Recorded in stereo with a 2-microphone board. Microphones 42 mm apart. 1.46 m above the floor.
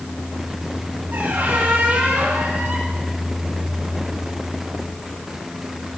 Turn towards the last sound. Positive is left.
turn(degrees=-55)  # may be behind; listen again after turning